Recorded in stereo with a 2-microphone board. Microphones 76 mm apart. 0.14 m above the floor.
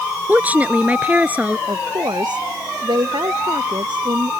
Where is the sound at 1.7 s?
75° right (ahead or behind).